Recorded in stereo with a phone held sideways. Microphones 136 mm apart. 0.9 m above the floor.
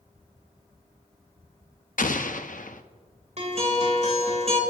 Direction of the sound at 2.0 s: 75° left (ahead or behind).